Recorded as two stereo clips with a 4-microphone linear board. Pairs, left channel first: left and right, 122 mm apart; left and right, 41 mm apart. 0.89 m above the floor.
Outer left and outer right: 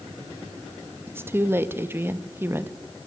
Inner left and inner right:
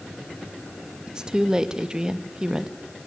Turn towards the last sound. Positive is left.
turn(degrees=-20)  # may be behind; listen again after turning